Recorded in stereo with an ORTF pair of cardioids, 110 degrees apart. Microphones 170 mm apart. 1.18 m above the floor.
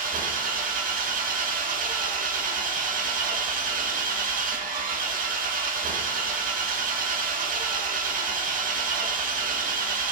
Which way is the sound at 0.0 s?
55° right.